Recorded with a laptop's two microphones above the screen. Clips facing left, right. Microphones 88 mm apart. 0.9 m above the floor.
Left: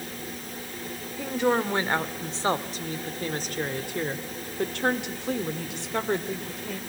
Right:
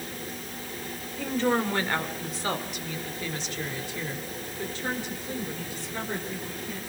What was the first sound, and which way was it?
A woman speaking, 10° left (ahead or behind).